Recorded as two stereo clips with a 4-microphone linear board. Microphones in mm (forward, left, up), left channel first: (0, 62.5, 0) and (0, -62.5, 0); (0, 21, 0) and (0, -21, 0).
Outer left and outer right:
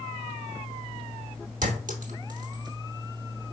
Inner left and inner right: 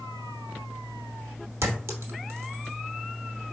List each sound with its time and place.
1.6 s a clink: 85° right, 0.9 m